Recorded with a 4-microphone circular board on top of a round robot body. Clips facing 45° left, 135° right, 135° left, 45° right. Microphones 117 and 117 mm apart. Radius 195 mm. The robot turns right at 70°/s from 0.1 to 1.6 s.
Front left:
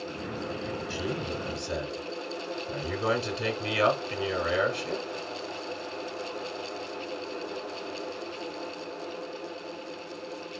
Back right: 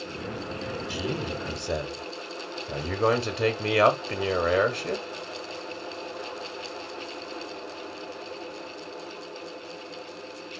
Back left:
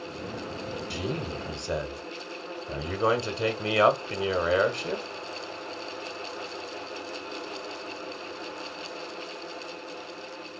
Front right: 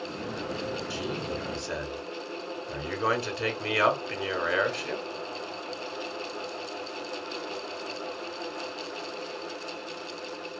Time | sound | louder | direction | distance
0.9 | a man speaking | back right 3 dB, even | 150° left | 1.2 m